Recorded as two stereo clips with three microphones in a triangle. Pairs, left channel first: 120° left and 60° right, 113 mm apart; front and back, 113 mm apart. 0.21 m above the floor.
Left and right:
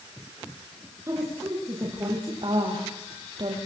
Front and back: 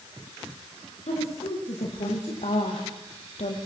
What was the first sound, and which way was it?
A woman speaking, straight ahead.